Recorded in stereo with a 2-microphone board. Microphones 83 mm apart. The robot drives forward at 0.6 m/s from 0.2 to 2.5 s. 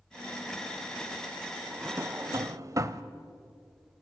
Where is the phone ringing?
I don't hear a phone ringing.